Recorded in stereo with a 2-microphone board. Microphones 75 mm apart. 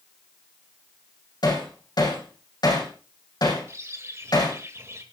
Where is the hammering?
65° left (ahead or behind), 5 m.